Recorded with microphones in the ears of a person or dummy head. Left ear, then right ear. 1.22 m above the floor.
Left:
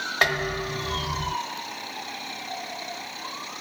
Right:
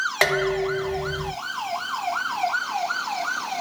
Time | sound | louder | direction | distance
0.2 | dishes clattering | right 2 dB | 30° right (ahead or behind) | 1.1 m